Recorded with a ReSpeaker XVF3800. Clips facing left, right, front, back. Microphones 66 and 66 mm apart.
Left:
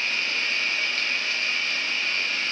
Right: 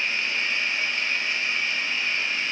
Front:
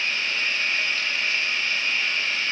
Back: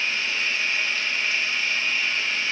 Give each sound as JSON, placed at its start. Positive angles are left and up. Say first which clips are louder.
{"t": 0.0, "sound": "running water", "louder": "right 1 dB, even", "azimuth_deg": 95, "distance_m": 2.5}